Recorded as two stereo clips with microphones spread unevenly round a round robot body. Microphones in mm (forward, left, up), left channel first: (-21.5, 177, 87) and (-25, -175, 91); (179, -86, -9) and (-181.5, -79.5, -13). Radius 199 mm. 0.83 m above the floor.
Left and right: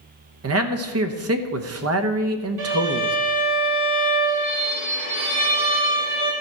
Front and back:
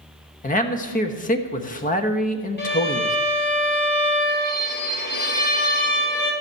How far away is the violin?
About 2.5 m.